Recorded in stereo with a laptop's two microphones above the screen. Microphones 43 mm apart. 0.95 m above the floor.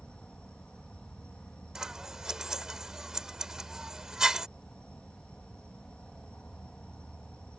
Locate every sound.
0.0 s an insect: 25° left (ahead or behind)
1.8 s scissors: 10° right (ahead or behind)